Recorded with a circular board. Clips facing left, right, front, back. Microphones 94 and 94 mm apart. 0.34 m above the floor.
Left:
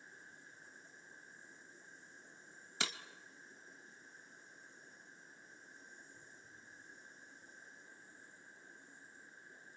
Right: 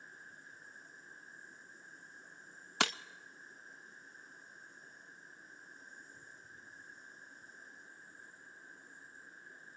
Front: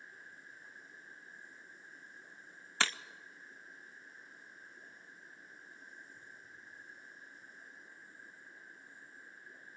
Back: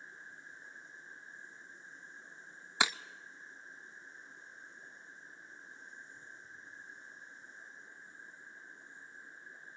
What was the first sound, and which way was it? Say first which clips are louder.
An insect: right 3 dB, back 2 dB; 120° right.